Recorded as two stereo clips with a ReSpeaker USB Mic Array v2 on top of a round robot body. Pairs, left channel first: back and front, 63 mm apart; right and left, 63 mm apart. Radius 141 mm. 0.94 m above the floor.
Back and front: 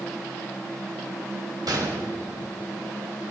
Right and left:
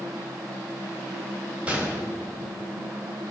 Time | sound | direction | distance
1.7 | a gunshot | 20° left | 1.8 m